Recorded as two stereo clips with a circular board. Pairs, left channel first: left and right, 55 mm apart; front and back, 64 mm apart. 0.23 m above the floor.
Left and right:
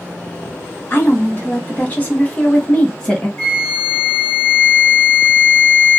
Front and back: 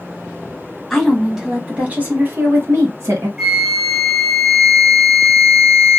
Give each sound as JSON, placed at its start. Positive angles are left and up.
{"t": 0.9, "sound": "a woman speaking", "azimuth_deg": 80, "distance_m": 1.2}
{"t": 3.4, "sound": "a flute", "azimuth_deg": 100, "distance_m": 1.8}